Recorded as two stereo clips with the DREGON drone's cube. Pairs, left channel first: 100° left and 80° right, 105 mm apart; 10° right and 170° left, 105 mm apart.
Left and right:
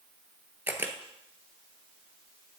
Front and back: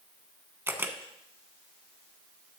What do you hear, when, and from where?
0.7 s a camera shutter: 135° right, 1.1 m